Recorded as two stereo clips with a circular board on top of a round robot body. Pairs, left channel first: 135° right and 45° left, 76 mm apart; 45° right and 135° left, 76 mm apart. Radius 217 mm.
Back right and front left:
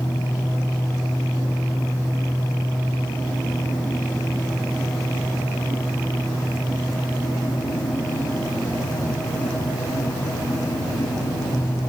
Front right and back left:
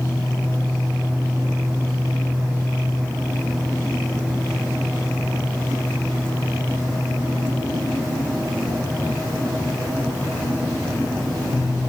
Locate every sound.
Only background noise.